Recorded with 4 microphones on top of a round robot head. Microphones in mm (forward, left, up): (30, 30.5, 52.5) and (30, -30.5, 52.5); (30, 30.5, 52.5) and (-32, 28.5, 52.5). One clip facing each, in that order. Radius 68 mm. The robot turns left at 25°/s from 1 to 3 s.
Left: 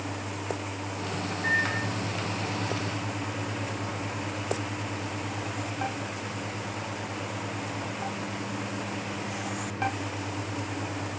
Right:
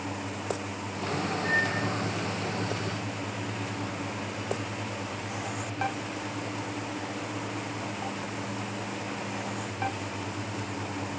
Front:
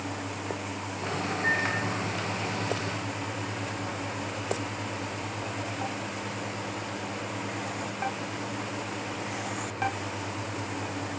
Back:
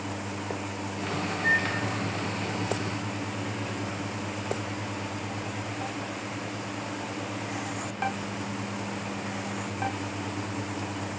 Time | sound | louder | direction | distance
1.4 | a microwave | left 2 dB, back 2 dB | 70° left | 2 m